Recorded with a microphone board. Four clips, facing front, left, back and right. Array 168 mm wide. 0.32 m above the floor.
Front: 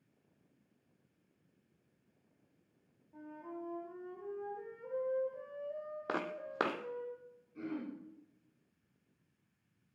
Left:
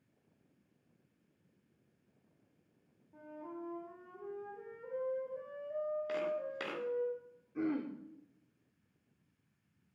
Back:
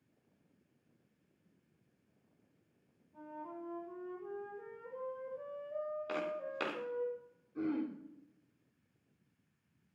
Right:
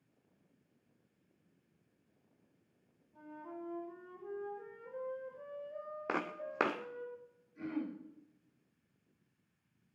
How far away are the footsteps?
About 2.5 m.